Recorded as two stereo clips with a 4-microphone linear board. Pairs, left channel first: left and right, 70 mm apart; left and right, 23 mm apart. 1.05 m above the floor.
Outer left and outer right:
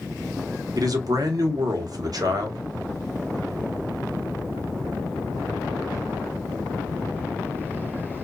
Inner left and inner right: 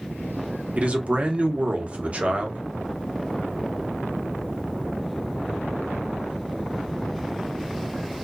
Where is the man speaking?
70° right (ahead or behind), 0.8 m.